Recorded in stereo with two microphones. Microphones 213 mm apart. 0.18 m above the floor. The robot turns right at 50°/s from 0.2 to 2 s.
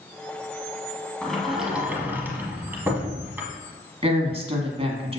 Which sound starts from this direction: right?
A woman speaking, at 4.0 s.